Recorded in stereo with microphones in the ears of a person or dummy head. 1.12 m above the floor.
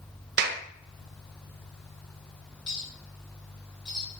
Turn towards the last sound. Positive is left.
turn(degrees=20)  # may be behind; listen again after turning